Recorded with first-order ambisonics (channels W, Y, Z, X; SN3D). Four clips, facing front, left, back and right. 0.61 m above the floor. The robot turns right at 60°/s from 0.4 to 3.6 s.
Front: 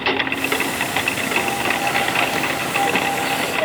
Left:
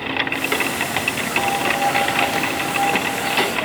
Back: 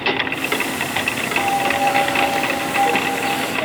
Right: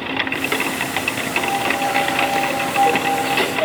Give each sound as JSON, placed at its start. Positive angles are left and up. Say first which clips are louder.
{"t": 1.4, "sound": "a piano", "louder": "left 1 dB, back 2 dB", "azimuth_deg": 155, "distance_m": 0.9}